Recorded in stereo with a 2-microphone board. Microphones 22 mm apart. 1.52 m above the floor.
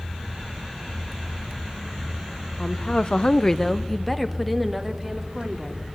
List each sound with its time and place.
2.6 s a woman speaking: 35° left (ahead or behind), 0.9 m; by 5.8 s 5° right (ahead or behind), 3.5 m